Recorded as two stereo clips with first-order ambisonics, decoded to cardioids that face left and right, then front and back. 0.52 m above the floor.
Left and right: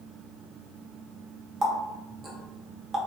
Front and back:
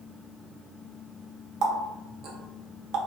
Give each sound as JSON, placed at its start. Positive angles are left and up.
{"t": 1.6, "sound": "a running tap", "azimuth_deg": -155, "distance_m": 0.7}